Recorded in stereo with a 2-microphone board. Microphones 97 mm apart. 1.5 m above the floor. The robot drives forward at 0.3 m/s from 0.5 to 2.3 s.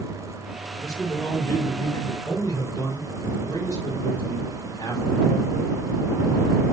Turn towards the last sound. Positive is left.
turn(degrees=40)  # may be behind; listen again after turning